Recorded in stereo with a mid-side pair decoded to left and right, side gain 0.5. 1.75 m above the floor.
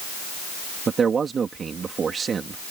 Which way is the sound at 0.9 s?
40° right.